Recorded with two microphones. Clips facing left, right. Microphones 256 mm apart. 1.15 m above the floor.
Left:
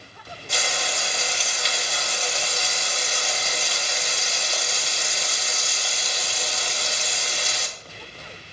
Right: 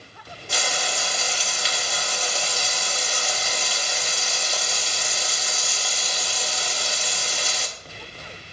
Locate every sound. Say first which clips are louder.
0.5 s frying: right 1 dB; centre (ahead or behind), 2.5 m